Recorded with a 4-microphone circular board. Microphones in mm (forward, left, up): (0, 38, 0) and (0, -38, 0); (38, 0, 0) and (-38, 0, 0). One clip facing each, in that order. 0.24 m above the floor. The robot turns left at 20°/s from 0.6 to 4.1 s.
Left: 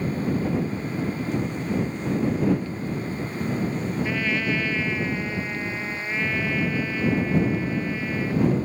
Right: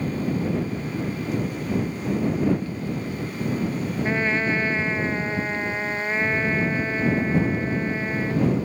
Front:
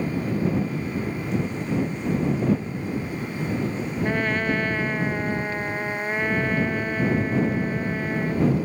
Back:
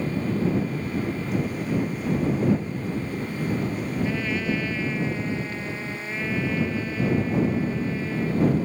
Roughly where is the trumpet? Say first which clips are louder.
Right 5 dB, front 5 dB; ahead right.